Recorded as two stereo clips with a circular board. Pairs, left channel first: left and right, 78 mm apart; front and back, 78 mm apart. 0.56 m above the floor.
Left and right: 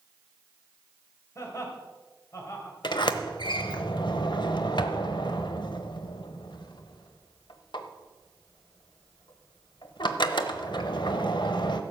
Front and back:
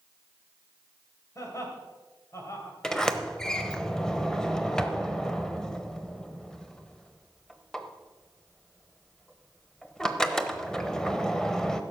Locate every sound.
1.4 s laughter: 45° left, 3 m
2.8 s a sliding door: 80° left, 0.8 m